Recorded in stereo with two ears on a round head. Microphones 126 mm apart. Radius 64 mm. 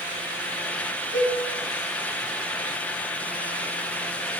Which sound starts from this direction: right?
A cowbell, at 1.1 s.